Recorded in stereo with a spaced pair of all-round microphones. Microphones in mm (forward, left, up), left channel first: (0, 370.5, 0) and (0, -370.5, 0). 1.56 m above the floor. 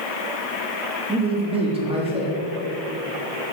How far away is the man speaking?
About 3.5 m.